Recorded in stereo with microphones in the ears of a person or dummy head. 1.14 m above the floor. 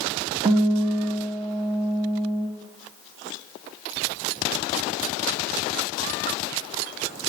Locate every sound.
0.5 s a guitar: 30° right (ahead or behind), 1.8 m